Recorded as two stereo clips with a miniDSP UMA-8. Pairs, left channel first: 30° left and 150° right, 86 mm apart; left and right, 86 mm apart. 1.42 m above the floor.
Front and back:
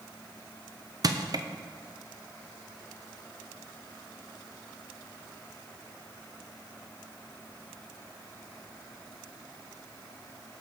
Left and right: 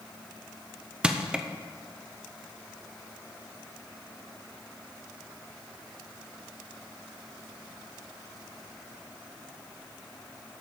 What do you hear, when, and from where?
1.0 s crushing: 165° right, 0.6 m